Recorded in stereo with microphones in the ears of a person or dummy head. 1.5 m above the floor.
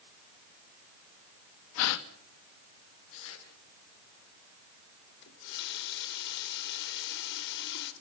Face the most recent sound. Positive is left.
turn(degrees=60)  # may be behind; listen again after turning